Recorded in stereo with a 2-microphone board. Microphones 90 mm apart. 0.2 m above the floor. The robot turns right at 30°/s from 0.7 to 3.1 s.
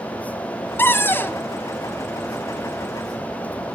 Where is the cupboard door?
25° left (ahead or behind), 1.4 m; by 1.4 s 20° left (ahead or behind), 1.4 m.